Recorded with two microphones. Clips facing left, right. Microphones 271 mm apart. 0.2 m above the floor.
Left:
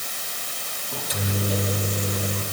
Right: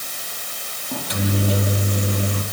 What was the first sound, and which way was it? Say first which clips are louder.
A microwave: right 6 dB; 70° right (ahead or behind).